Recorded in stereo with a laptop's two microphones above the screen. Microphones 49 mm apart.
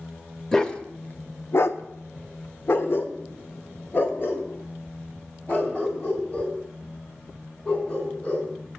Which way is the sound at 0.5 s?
10° left (ahead or behind).